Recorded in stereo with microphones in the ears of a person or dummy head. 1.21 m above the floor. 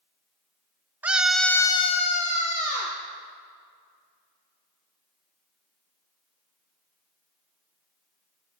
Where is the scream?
10° right (ahead or behind), 0.9 m; by 3.0 s 30° left (ahead or behind), 1.4 m.